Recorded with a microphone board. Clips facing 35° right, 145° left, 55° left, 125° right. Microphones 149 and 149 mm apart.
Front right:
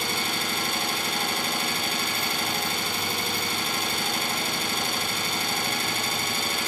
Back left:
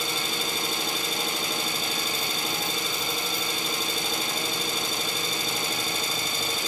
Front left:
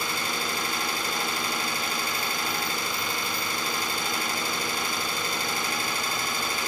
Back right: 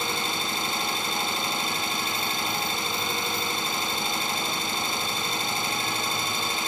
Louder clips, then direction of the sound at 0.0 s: Front right 1 dB, back right 1 dB; 60° right.